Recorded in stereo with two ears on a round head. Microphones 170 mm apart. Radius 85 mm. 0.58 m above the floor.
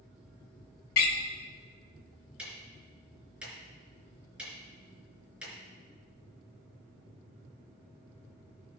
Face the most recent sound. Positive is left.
turn(degrees=-5)  # may be behind; listen again after turning